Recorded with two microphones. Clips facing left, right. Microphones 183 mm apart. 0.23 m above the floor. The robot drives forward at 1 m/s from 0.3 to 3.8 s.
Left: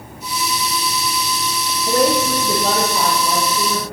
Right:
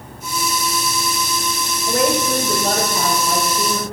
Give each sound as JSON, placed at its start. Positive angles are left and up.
{"t": 1.9, "sound": "a woman speaking", "side_deg": 35, "distance_m": 4.0}